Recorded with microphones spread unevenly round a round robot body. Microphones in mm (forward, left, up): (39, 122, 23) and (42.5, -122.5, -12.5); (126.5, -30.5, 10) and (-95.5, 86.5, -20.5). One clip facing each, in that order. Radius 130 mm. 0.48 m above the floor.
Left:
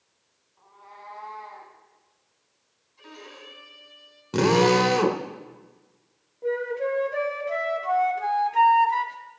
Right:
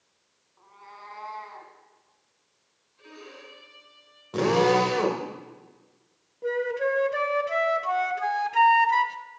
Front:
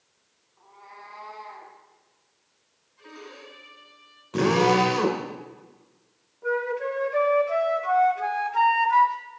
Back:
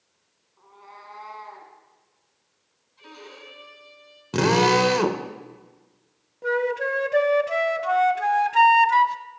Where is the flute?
165° right, 0.6 m.